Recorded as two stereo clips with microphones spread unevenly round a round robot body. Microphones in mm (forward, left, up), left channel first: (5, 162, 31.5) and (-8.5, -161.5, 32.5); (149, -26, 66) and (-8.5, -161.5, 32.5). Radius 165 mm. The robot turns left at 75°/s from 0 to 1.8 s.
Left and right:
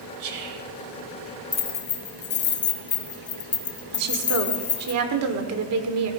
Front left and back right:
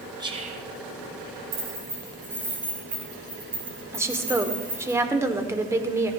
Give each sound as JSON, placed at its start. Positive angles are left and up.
{"t": 0.2, "sound": "whispering", "azimuth_deg": -70, "distance_m": 2.5}
{"t": 1.5, "sound": "keys jangling", "azimuth_deg": 165, "distance_m": 1.1}
{"t": 3.9, "sound": "a woman speaking", "azimuth_deg": -75, "distance_m": 1.5}